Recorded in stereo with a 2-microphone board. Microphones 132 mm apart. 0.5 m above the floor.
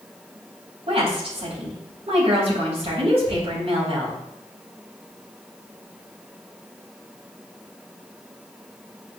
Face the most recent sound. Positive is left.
turn(degrees=-50)  # may be behind; listen again after turning